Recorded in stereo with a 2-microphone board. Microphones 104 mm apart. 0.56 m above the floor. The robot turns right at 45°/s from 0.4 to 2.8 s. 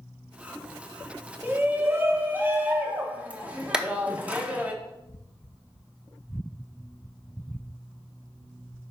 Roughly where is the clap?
Centre.